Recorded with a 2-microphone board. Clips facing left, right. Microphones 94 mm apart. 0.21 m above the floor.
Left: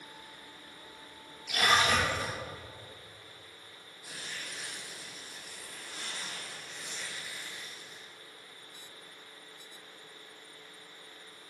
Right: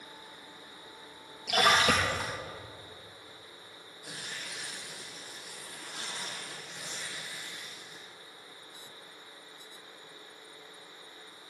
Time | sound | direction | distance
1.5 | a splash | 80° right | 5 m
4.0 | tearing paper | 80° right | 4.5 m